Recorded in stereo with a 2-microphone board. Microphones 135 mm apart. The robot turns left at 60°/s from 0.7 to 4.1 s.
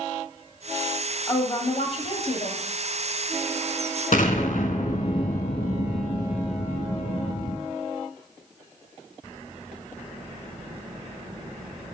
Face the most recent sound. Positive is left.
turn(degrees=75)  # may be behind; listen again after turning